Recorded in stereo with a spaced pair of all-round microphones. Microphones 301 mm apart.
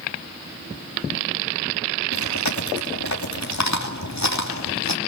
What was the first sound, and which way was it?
Chewing, 65° left (ahead or behind).